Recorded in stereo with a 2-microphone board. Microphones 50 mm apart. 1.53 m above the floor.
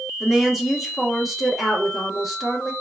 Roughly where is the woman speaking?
Centre.